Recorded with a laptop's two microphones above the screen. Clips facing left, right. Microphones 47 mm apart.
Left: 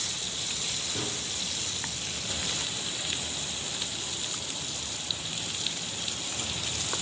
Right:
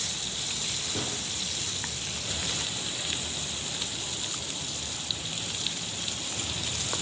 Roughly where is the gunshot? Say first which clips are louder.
Right 1 dB; centre.